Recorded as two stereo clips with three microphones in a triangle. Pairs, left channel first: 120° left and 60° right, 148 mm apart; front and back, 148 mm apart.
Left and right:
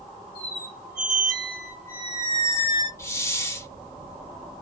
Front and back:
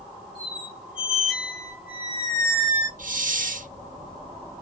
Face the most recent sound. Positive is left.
turn(degrees=-170)